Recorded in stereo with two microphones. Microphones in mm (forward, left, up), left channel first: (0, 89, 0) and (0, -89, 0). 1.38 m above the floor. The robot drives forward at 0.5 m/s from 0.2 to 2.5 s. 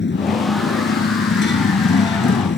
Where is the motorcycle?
80° left; by 2.6 s 85° left.